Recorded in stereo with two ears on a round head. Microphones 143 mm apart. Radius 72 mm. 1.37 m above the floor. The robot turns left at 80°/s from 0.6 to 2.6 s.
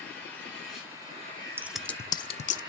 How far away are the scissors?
About 0.5 m.